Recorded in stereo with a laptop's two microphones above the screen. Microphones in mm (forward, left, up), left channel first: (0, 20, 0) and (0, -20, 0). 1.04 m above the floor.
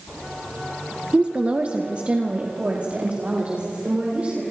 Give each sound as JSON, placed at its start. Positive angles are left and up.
{"t": 1.1, "sound": "a woman speaking", "side_deg": -25, "distance_m": 0.9}